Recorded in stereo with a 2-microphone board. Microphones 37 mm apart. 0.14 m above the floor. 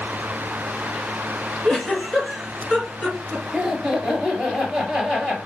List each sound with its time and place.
1.6 s a giggle: 15° left (ahead or behind), 1.9 m
3.5 s laughter: 20° right (ahead or behind), 2.0 m